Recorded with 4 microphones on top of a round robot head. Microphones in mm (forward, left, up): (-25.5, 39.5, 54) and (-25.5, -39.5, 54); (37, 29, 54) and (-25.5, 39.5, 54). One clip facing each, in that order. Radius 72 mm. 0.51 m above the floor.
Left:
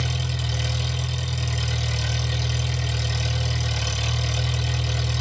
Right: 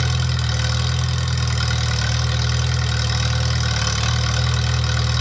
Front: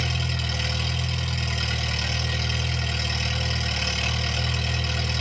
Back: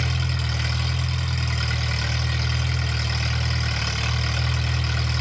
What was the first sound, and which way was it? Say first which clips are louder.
An engine running: right 5 dB, back 1 dB; 115° right.